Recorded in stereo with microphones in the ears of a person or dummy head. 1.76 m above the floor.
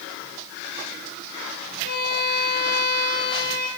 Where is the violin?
60° left (ahead or behind), 7 m.